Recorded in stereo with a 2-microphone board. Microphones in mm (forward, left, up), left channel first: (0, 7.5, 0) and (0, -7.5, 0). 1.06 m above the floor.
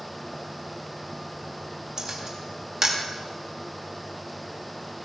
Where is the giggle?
No giggle in this recording.